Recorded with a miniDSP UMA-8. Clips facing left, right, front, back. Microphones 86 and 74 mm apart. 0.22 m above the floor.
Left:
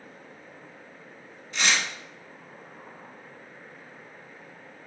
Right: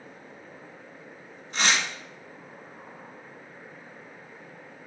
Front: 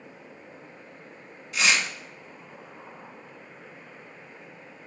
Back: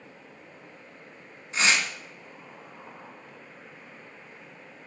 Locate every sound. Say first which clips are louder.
1.5 s tearing paper: right 1 dB, even; 130° right, 1.1 m